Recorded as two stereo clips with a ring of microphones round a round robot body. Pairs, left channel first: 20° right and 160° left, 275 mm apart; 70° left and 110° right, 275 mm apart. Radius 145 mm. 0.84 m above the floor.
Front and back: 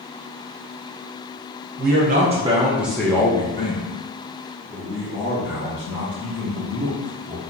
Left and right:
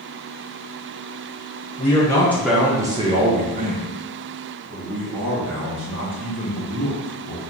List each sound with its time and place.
1.8 s a man speaking: 130° left, 0.8 m; by 7.4 s 70° right, 2.5 m